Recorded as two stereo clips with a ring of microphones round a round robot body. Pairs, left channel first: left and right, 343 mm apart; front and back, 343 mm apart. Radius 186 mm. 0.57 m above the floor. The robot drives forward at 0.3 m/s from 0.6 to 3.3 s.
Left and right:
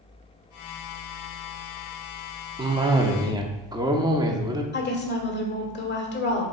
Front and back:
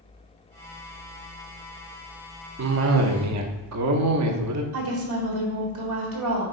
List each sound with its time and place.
2.6 s a cough: 160° right, 0.7 m; by 4.6 s 165° right, 0.8 m
4.7 s a woman speaking: 150° left, 1.7 m